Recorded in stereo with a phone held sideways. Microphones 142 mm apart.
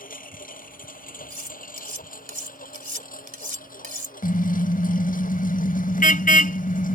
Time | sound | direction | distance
0.0 | a lawn mower | 80° left | ?
1.3 | cutlery clinking | 80° right | ?
4.2 | a car horn | 80° left | ?